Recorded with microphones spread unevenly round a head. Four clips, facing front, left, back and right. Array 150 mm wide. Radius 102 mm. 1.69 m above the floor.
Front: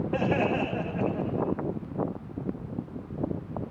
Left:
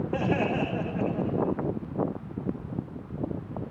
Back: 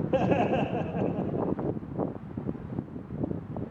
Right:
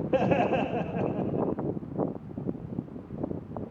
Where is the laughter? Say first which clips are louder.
Right 3 dB, back 2 dB; 130° right, 1.9 m.